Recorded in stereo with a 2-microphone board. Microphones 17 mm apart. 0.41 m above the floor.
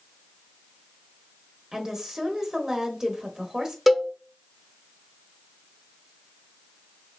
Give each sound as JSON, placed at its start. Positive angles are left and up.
{"t": 1.7, "sound": "a woman speaking", "side_deg": -30, "distance_m": 1.3}
{"t": 3.9, "sound": "a cowbell", "side_deg": 0, "distance_m": 0.8}